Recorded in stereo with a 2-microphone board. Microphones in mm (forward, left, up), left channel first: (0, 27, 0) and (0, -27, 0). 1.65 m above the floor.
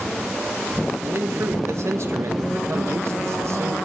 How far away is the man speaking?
About 1.8 m.